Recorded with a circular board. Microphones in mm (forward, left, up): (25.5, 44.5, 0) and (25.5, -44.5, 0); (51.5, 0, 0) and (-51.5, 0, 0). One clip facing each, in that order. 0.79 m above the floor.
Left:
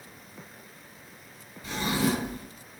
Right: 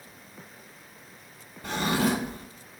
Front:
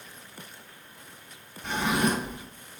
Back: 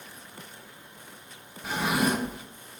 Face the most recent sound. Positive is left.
turn(degrees=-100)